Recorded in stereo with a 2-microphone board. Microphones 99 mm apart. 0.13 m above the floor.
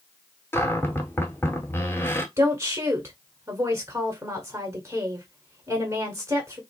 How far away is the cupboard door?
About 0.6 m.